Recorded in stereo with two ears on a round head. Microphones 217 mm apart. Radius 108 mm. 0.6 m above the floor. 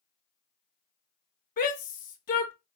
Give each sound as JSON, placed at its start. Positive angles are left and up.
{"t": 1.6, "sound": "a shout", "side_deg": 35, "distance_m": 0.7}